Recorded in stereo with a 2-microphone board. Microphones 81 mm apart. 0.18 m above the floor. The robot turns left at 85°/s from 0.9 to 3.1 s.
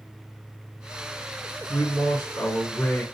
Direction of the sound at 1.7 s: 135° left.